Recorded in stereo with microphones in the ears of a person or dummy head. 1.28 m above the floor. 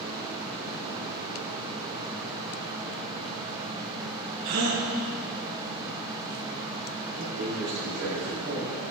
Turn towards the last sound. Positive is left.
turn(degrees=-70)  # may be behind; listen again after turning